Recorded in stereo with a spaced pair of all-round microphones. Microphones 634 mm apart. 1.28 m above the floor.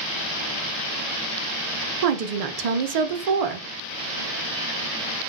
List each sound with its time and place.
2.0 s a woman speaking: 70° right (ahead or behind), 0.5 m